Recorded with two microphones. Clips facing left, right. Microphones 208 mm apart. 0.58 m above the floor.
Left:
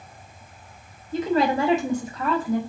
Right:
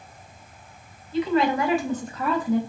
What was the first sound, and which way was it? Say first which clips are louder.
A woman speaking: even; 50° left (ahead or behind).